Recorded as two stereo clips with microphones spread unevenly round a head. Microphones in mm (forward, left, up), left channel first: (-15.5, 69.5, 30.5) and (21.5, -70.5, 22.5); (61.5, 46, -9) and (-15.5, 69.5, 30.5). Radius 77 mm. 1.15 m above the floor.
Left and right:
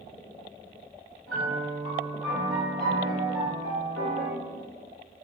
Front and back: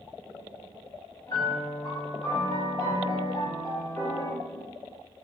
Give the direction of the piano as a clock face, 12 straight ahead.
11 o'clock.